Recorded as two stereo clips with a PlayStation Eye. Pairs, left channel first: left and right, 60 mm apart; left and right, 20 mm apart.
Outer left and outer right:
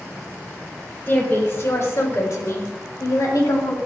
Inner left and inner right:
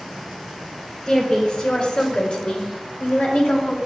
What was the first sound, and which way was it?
A woman speaking, 35° left (ahead or behind).